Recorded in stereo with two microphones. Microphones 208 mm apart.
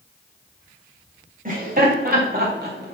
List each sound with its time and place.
1.4 s laughter: 40° right (ahead or behind), 2.5 m; by 2.9 s 50° right (ahead or behind), 3 m